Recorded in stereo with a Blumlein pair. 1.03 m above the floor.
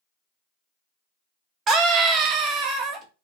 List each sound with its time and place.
1.7 s a scream: 25° right, 0.9 m